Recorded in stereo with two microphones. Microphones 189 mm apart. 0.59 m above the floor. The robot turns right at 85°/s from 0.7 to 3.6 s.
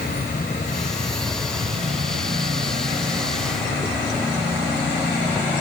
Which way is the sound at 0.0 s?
120° left.